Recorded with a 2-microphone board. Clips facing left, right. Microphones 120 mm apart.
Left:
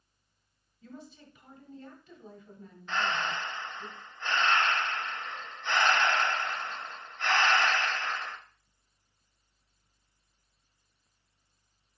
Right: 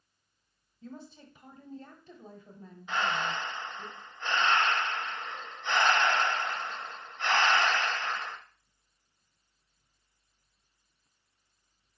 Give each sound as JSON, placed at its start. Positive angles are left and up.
{"t": 0.8, "sound": "a woman speaking", "side_deg": -35, "distance_m": 1.2}
{"t": 2.9, "sound": "breathing", "side_deg": -10, "distance_m": 0.6}